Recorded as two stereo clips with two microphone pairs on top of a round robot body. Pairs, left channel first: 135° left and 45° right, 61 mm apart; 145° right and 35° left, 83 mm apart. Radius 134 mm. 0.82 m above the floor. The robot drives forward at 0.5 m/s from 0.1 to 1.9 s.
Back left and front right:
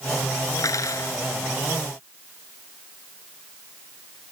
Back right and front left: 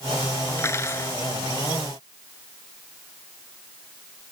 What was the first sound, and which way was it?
Cutlery clinking, 155° left.